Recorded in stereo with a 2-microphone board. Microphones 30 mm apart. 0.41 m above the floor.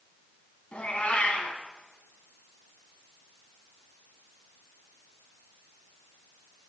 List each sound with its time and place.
0.7 s a cat meowing: 50° left (ahead or behind), 1.1 m